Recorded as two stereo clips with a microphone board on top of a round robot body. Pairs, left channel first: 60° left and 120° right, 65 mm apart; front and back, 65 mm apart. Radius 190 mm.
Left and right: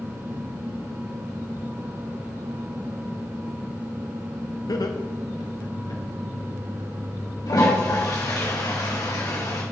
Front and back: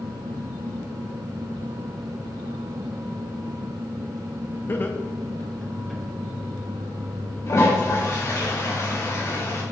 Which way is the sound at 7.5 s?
40° left.